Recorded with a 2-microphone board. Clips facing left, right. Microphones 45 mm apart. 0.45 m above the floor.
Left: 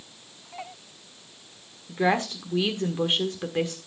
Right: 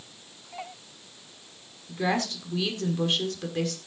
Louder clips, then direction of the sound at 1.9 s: Left 3 dB; 20° left (ahead or behind).